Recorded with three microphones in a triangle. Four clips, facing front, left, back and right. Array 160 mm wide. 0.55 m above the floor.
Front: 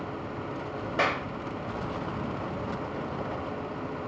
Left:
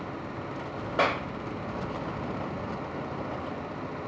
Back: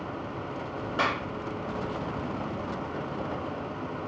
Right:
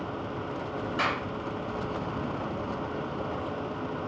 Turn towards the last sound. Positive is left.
turn(degrees=75)